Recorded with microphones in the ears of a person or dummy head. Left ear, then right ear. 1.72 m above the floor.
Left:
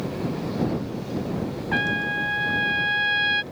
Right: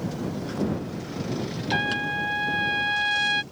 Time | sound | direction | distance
1.7 | a trumpet | 5° right (ahead or behind) | ?